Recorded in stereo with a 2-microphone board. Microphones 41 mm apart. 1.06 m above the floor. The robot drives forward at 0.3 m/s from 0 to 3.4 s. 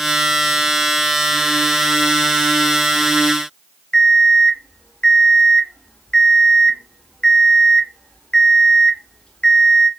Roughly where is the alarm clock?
Left.